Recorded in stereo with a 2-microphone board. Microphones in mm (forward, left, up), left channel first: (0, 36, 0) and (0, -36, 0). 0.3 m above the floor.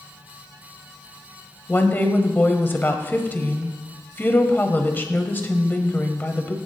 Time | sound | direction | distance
1.7 | a woman speaking | 25° left (ahead or behind) | 1.2 m